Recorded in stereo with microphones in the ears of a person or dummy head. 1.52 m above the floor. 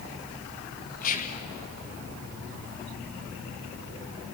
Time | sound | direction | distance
1.0 | whispering | 40° left (ahead or behind) | 0.9 m